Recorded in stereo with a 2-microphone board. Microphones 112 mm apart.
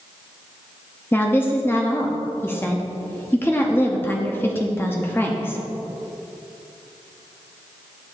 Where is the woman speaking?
20° left (ahead or behind), 0.7 m.